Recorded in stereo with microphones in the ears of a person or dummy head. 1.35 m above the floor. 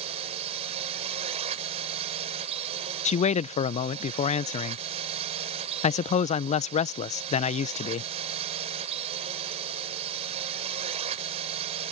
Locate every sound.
0.0 s a drone: 30° right (ahead or behind)
3.0 s a man speaking: 35° left (ahead or behind)